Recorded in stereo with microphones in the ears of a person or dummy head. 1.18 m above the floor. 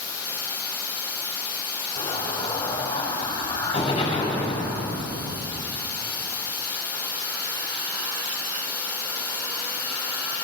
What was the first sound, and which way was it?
Running water, 20° left (ahead or behind).